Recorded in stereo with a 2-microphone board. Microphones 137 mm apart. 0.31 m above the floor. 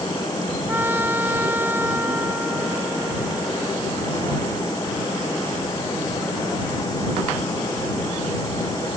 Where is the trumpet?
15° right (ahead or behind).